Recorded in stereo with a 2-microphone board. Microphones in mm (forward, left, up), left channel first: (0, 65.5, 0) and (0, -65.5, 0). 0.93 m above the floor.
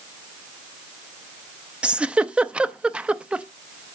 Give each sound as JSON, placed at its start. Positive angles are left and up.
{"t": 1.8, "sound": "a giggle", "side_deg": -10, "distance_m": 0.5}